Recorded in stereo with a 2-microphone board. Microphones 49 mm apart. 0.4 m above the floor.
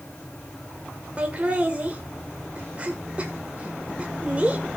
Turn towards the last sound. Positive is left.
turn(degrees=-25)  # may be behind; listen again after turning